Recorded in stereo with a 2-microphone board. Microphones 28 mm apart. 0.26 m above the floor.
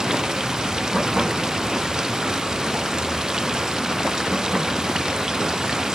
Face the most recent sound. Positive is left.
turn(degrees=-20)  # may be behind; listen again after turning